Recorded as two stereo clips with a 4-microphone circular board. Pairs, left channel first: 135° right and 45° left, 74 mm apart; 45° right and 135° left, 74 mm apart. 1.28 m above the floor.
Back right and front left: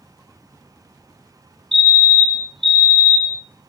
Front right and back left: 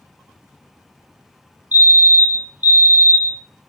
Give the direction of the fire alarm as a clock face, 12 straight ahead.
7 o'clock.